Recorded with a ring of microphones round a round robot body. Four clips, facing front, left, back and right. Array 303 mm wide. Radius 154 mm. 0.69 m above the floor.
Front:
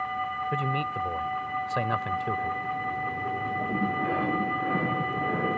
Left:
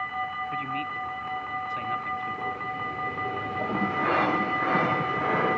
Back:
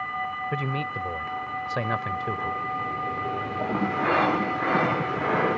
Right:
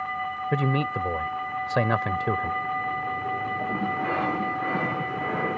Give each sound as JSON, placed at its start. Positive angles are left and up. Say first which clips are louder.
{"t": 0.5, "sound": "a man speaking", "louder": "right 6 dB, front 1 dB", "azimuth_deg": -95}